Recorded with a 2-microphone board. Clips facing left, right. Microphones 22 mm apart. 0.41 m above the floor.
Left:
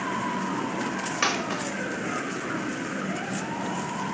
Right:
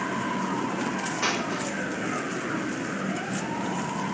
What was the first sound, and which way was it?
A dropped coin, 60° left (ahead or behind).